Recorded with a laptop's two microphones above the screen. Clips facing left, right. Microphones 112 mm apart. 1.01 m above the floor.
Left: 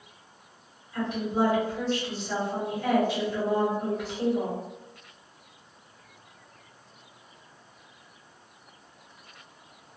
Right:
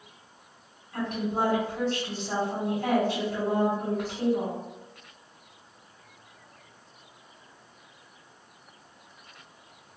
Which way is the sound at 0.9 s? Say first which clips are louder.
Left 1 dB; 60° right (ahead or behind).